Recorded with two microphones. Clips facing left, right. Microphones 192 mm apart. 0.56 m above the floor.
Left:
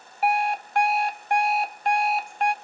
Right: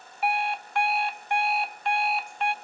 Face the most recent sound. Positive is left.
turn(degrees=40)  # may be behind; listen again after turning